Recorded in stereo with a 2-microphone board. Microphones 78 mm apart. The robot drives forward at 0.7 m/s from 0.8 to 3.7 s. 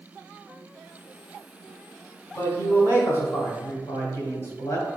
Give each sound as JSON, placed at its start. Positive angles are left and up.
{"t": 2.4, "sound": "a man speaking", "side_deg": 25, "distance_m": 1.6}